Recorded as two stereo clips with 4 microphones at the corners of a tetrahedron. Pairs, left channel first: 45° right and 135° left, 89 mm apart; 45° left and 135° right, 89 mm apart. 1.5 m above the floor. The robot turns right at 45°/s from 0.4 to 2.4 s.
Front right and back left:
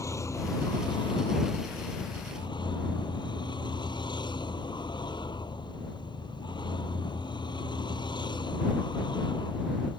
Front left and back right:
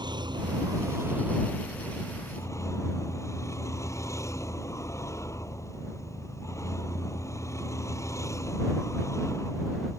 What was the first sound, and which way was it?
A vehicle, 100° right.